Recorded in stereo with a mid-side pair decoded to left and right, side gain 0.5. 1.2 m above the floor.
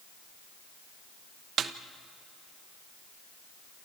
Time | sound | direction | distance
1.6 | a snare drum | 55° right | 1.1 m